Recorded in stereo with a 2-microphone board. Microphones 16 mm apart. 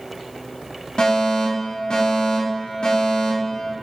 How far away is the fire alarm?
About 4.5 m.